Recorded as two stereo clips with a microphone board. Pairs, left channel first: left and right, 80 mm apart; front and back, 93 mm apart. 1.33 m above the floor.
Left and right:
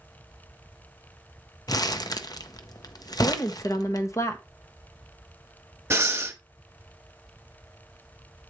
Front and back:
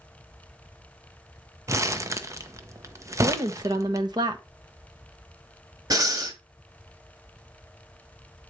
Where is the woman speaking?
140° left, 1.0 m.